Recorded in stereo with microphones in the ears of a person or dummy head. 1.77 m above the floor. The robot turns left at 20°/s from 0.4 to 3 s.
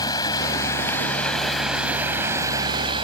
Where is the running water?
25° left; by 3.0 s 30° right.